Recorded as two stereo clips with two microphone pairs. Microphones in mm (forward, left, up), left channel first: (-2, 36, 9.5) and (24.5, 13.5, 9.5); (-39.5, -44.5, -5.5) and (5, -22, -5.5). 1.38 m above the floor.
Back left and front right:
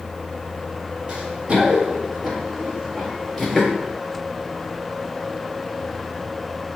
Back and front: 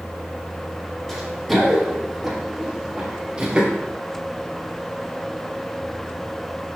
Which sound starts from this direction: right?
Running footsteps, at 1.1 s.